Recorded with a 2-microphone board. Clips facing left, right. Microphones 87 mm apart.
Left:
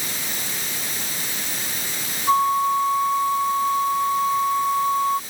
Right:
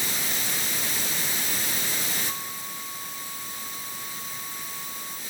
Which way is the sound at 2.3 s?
75° left (ahead or behind).